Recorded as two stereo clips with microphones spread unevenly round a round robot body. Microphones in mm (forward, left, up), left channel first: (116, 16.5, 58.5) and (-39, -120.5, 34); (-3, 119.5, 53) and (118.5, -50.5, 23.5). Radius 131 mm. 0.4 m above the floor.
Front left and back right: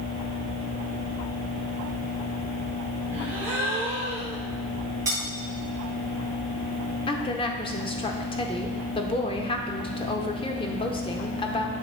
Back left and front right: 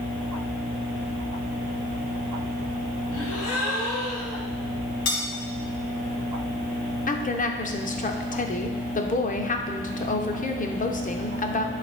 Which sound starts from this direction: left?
A woman speaking, at 7.1 s.